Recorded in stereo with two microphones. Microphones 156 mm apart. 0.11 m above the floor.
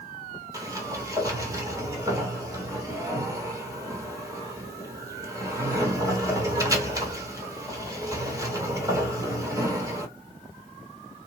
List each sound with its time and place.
0.5 s a sliding door: 20° right (ahead or behind), 1.0 m